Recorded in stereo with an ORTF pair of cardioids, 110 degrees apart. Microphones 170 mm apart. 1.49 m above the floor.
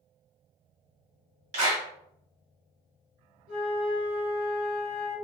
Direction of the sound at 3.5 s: 65° right.